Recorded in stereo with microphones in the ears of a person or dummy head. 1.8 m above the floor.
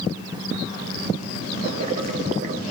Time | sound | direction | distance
1.6 | boiling | 50° right (ahead or behind) | 0.9 m